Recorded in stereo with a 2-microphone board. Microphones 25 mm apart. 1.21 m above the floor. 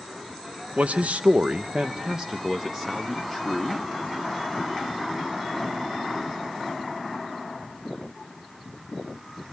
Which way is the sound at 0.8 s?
80° right.